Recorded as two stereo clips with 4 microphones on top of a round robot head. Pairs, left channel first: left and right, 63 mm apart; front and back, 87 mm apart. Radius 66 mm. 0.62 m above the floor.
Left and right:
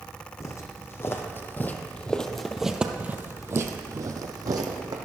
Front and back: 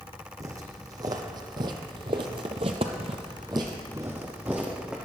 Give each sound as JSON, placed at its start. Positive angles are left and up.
{"t": 0.4, "sound": "footsteps", "azimuth_deg": 130, "distance_m": 1.6}